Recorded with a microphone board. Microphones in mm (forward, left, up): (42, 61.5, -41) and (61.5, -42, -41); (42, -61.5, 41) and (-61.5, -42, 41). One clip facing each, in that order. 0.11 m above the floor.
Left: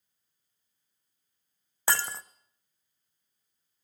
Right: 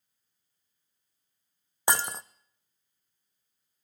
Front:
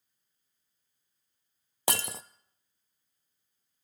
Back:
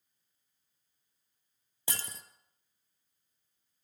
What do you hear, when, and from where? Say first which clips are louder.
1.9 s breaking glass: right 2 dB, front 10 dB; 10° right, 0.8 m